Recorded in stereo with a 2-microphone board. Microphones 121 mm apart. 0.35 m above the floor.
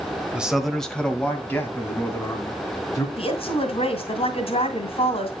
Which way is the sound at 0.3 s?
10° right (ahead or behind).